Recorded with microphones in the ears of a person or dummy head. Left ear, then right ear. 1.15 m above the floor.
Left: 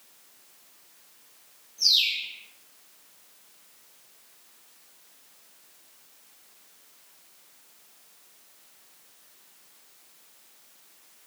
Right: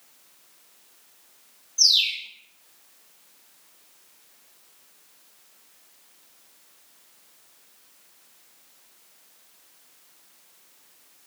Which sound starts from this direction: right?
A bird, at 1.8 s.